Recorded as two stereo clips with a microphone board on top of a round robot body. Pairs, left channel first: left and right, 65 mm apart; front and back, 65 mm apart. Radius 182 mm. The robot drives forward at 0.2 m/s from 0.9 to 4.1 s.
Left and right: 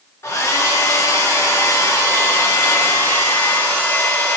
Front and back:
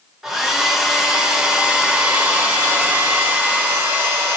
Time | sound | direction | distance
0.2 | a hair dryer | 100° left | 1.0 m